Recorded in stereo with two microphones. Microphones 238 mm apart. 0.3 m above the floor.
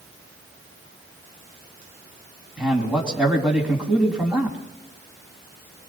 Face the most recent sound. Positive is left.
turn(degrees=-5)  # may be behind; listen again after turning